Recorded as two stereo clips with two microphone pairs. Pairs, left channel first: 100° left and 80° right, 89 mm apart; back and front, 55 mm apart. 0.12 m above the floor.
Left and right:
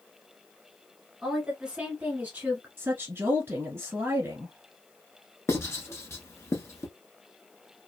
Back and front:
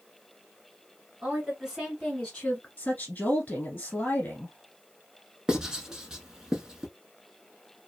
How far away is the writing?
About 0.8 m.